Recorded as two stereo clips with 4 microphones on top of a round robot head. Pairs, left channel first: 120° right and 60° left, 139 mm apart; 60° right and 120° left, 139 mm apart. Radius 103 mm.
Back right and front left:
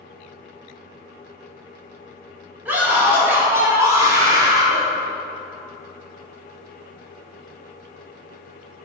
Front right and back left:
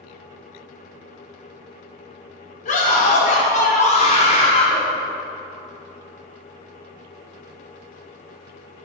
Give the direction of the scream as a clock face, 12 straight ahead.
1 o'clock.